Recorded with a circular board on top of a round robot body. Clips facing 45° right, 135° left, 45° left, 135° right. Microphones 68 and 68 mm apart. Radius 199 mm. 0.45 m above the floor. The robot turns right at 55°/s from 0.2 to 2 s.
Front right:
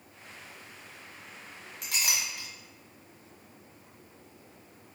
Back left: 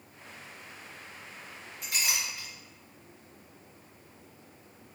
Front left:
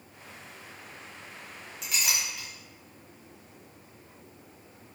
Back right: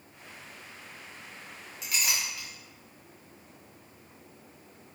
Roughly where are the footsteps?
No footsteps in this recording.